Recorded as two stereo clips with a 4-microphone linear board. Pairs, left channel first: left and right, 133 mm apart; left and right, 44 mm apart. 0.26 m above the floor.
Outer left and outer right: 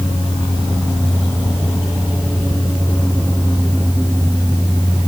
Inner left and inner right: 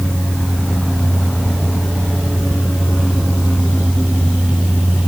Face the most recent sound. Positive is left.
No sound to turn to.